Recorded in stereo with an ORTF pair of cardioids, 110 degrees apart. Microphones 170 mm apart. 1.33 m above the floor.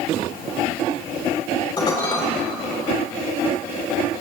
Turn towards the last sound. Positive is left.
turn(degrees=25)